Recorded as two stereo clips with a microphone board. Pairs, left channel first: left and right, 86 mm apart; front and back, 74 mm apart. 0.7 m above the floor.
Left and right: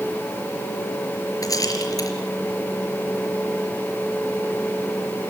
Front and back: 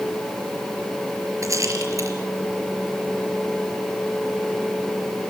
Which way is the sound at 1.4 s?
135° left.